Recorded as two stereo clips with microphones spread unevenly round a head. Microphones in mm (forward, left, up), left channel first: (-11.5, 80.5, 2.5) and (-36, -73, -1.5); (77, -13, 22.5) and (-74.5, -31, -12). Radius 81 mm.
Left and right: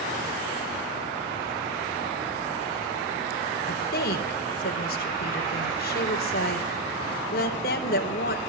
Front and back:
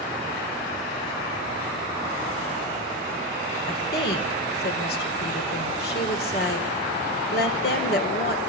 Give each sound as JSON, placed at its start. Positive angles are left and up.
{"t": 3.7, "sound": "a woman speaking", "azimuth_deg": 40, "distance_m": 4.0}